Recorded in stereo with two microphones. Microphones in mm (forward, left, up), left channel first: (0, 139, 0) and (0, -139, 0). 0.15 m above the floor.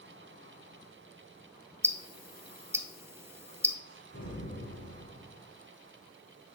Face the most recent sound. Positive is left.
turn(degrees=75)  # may be behind; listen again after turning